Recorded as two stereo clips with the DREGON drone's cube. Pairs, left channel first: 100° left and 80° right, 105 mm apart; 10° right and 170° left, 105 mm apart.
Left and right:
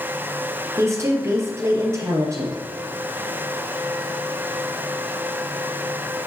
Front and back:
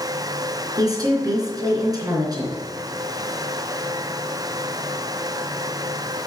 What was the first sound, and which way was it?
A woman speaking, 140° right.